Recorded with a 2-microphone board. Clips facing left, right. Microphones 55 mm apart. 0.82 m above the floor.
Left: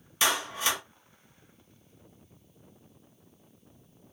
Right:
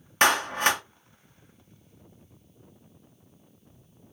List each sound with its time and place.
0.2 s a clap: 55° right (ahead or behind), 0.5 m